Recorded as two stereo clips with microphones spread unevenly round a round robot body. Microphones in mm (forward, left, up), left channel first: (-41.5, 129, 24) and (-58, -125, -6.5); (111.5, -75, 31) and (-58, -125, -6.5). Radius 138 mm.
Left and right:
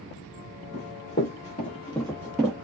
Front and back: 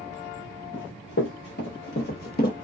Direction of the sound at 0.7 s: 30° left.